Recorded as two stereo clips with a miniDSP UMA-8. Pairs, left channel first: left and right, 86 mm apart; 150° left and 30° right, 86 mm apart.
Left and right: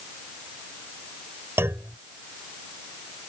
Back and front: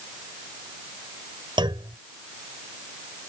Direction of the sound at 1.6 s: 30° right.